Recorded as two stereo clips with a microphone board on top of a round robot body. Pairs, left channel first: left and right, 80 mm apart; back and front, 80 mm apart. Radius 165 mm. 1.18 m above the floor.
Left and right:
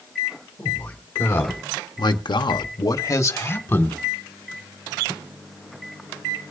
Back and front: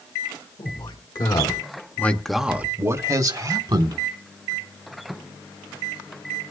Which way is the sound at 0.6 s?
155° left.